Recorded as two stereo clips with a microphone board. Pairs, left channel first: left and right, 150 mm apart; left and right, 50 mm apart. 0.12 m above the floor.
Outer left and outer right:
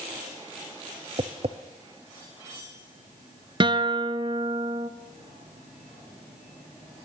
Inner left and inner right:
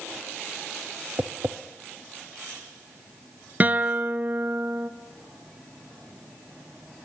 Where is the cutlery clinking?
I don't hear cutlery clinking.